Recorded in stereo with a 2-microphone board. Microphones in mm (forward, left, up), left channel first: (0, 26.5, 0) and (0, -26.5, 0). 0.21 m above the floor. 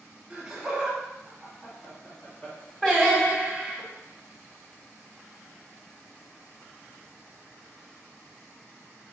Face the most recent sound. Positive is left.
turn(degrees=20)  # may be behind; listen again after turning